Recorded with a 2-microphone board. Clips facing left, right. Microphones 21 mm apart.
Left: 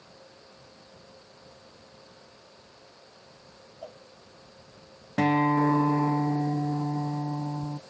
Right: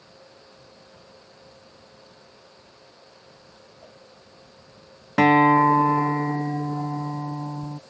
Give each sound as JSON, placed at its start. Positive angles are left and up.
{"t": 3.8, "sound": "a cowbell", "side_deg": 55}
{"t": 5.2, "sound": "a guitar", "side_deg": -45}